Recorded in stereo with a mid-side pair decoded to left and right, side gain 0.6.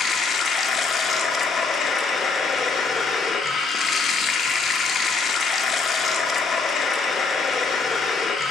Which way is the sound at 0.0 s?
30° left.